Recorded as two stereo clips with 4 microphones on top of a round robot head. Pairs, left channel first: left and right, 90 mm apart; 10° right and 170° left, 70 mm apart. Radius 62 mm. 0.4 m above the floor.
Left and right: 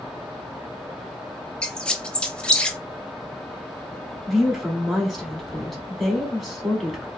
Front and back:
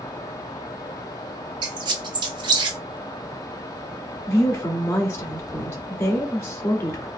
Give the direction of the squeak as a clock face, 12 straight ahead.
6 o'clock.